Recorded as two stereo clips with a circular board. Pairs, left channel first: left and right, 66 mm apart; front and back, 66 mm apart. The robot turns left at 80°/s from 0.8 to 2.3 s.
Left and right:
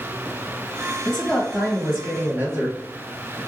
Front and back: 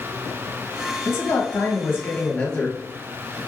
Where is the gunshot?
I don't hear a gunshot.